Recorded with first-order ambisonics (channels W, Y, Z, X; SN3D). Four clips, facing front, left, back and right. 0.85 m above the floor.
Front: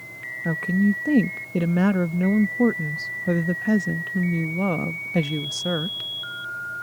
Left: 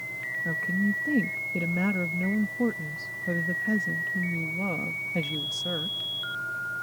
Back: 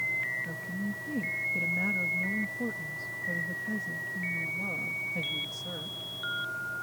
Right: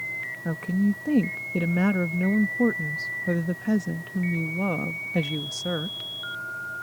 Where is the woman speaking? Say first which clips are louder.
Right 2 dB, front 13 dB; 20° right.